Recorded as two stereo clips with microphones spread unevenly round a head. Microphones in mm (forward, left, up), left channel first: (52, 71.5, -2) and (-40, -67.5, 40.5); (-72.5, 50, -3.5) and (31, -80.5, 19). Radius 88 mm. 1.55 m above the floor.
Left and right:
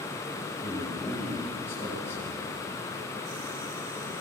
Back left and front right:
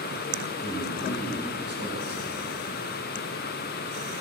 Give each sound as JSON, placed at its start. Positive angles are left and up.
{"t": 0.6, "sound": "a man speaking", "azimuth_deg": -20, "distance_m": 8.0}